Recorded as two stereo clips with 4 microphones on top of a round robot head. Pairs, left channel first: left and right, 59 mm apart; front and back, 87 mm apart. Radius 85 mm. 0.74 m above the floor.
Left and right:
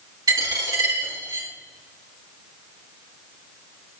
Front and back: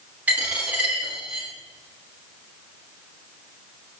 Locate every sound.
0.3 s a dropped coin: 105° right, 2.5 m